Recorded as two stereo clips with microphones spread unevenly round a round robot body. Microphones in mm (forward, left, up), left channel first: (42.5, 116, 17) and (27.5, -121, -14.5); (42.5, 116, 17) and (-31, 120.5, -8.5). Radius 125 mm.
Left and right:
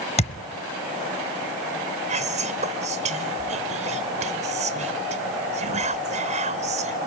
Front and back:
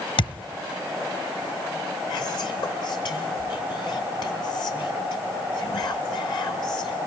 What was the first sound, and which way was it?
A thud, 20° left.